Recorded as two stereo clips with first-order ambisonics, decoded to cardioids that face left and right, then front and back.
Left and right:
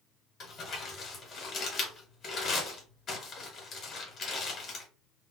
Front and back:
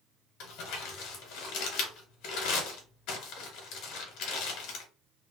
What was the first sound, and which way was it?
Crumpling, 30° left.